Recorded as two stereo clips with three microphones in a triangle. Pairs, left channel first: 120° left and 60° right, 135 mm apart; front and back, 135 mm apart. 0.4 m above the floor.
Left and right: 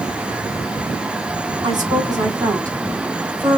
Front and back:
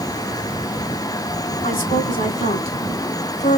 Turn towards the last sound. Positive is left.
turn(degrees=15)